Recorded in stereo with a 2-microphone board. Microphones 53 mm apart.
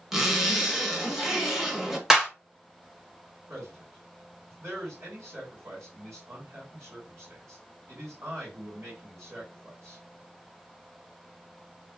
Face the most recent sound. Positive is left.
turn(degrees=-70)  # may be behind; listen again after turning